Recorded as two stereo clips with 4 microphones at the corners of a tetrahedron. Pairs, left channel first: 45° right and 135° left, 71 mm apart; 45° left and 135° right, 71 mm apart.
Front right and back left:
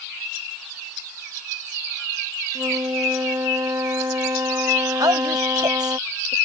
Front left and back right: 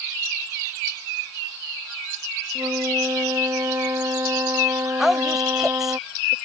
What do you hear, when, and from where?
2.5 s a flute: straight behind
5.0 s a woman speaking: 140° left